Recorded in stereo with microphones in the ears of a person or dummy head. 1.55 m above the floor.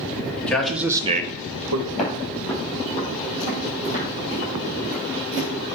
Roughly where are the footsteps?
Centre.